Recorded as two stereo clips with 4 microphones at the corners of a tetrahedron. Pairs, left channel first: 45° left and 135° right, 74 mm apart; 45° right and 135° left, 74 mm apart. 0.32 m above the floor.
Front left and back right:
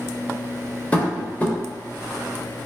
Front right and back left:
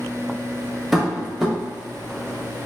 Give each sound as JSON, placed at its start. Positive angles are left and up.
{"t": 0.9, "sound": "tapping", "azimuth_deg": 55, "distance_m": 1.3}